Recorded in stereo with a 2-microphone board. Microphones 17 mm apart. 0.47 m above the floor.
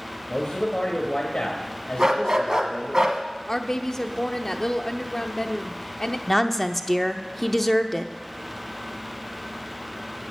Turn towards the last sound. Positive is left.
turn(degrees=10)  # may be behind; listen again after turning